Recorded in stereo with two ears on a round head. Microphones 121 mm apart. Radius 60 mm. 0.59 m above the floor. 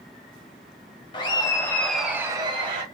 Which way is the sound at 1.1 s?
35° left (ahead or behind).